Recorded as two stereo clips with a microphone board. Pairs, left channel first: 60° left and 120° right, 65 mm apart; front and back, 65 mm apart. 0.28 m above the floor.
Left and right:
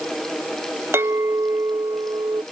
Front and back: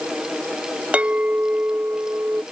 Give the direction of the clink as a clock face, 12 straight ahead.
4 o'clock.